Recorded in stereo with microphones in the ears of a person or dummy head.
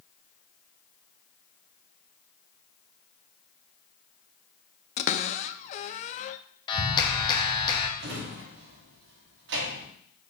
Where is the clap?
25° left (ahead or behind), 1.5 m.